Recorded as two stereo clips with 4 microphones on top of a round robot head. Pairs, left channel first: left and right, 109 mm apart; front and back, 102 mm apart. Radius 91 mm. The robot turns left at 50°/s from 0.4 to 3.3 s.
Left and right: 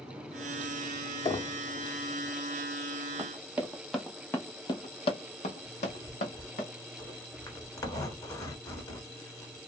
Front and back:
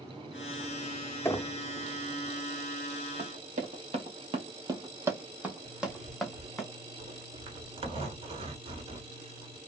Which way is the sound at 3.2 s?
150° right.